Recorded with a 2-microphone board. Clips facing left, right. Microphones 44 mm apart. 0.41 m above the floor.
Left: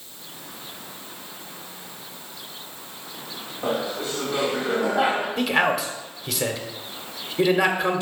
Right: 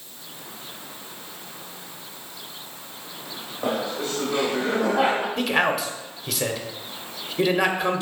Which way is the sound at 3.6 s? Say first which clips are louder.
Even; 15° right (ahead or behind).